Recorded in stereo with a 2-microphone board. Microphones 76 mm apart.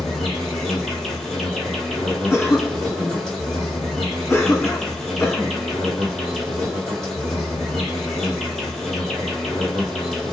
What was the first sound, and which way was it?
An insect, 5° left (ahead or behind).